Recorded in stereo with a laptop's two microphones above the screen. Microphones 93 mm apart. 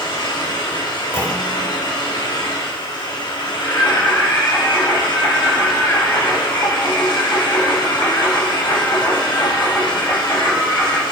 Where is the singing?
30° left (ahead or behind), 5.5 m.